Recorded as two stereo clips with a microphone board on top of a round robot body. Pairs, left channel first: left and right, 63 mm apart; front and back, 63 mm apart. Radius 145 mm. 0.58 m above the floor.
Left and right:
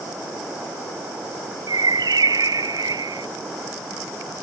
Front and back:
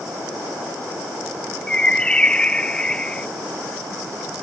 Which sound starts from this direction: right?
A bird, at 1.7 s.